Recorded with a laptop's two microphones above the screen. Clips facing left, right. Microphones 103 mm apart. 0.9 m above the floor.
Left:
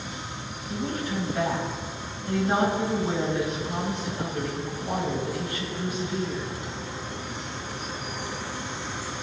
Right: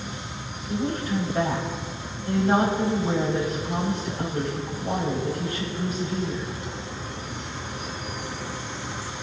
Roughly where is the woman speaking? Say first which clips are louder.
Right 4 dB; right.